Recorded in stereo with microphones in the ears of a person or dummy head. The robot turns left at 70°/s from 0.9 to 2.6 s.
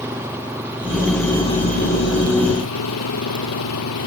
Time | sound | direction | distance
0.0 | an engine running | 165° right | ?